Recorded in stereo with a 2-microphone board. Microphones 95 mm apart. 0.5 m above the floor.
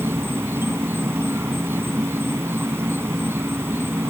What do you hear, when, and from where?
0.0 s an insect: 25° right (ahead or behind)